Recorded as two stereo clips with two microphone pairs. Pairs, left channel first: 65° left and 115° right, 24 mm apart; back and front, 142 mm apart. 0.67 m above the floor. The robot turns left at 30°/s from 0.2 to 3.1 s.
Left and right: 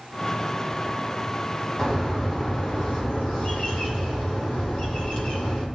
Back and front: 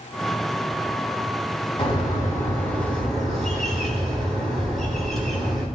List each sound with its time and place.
1.8 s a bird: 130° left, 4 m; by 5.7 s 90° left, 4 m